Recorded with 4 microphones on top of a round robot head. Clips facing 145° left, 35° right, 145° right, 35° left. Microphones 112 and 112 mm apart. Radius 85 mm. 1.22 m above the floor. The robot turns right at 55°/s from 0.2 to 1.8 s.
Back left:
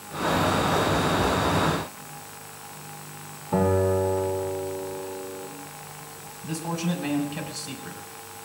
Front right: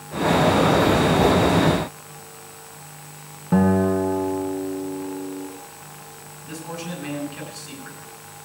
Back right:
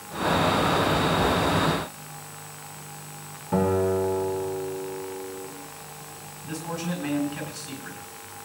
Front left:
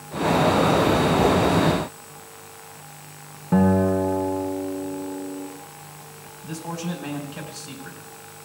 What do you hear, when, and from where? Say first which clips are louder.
3.5 s a guitar: front right 3 dB, front left 3 dB; 5° right, 2.5 m
6.4 s a man speaking: back left 4 dB, front left 1 dB; 95° left, 4.5 m